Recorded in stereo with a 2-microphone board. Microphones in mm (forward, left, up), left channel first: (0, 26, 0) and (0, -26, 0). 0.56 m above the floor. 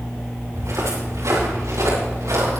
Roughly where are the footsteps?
Right.